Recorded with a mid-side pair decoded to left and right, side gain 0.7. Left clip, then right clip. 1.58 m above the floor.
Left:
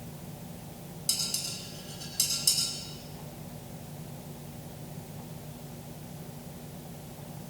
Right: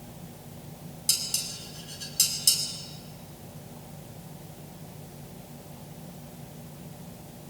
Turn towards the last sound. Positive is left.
turn(degrees=-20)